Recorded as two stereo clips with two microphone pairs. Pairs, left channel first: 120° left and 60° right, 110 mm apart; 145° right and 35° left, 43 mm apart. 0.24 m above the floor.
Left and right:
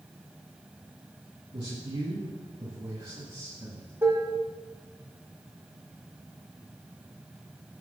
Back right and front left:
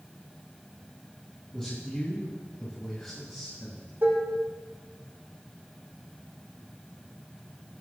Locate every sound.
1.5 s a man speaking: 80° right, 2 m
4.0 s dishes clattering: 5° left, 1.5 m